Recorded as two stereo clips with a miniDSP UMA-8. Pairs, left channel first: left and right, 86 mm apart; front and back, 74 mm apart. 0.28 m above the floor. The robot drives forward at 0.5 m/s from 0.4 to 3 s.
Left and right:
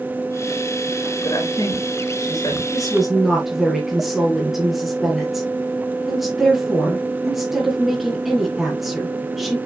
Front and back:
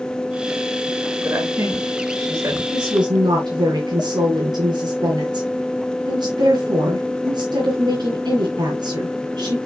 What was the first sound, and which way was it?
A woman speaking, 130° left.